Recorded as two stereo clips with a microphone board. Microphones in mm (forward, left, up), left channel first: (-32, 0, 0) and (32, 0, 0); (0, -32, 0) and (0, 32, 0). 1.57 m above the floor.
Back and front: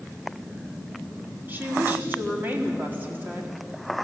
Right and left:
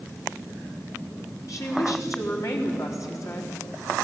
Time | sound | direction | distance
1.5 | a woman speaking | 60° right | 3.5 m